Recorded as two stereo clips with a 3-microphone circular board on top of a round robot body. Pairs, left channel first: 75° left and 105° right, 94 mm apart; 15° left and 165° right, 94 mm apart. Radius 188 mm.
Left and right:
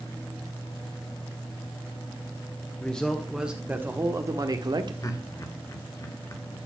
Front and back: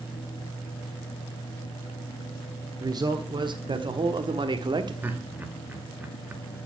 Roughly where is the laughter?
Behind left.